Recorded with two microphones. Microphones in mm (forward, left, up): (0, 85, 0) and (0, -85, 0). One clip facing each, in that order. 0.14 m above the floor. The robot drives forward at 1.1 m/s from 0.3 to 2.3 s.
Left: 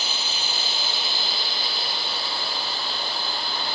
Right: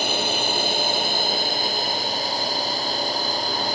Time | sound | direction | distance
0.0 | a drone | 55° right (ahead or behind) | ?